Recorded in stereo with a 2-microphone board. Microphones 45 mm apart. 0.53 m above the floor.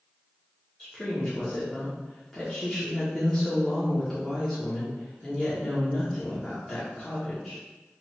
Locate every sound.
0.8 s a woman speaking: 10° left (ahead or behind), 1.2 m